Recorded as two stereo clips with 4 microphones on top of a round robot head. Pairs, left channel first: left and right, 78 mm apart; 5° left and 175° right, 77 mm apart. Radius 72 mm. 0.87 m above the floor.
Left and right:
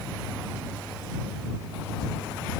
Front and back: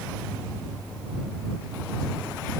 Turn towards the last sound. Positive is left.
No sound to turn to.